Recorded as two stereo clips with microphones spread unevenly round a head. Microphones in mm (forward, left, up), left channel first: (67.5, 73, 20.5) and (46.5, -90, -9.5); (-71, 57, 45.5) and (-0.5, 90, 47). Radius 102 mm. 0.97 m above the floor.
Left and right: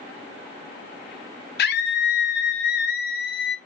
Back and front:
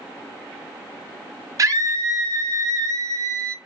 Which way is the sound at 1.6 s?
65° left.